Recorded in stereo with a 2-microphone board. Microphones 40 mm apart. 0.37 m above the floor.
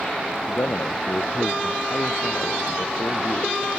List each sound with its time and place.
0.5 s a man speaking: 80° left